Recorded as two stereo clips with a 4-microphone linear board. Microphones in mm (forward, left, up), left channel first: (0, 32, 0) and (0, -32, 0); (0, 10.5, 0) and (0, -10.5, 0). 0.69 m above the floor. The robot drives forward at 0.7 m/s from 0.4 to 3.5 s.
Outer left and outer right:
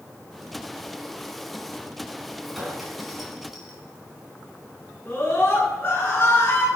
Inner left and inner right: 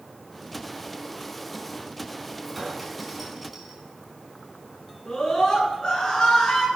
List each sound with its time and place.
2.5 s a clink: centre (ahead or behind), 5 m
5.1 s a scream: 35° left (ahead or behind), 9.5 m